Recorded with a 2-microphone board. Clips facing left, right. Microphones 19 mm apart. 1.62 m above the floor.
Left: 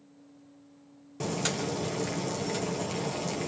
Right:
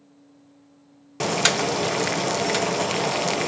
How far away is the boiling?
About 0.7 m.